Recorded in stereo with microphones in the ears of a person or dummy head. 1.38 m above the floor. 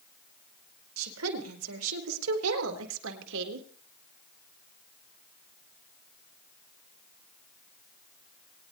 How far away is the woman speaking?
About 4.5 m.